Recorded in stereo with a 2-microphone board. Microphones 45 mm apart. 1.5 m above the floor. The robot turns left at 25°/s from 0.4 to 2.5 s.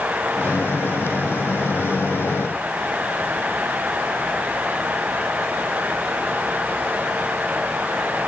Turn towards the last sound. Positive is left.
No sound to turn to.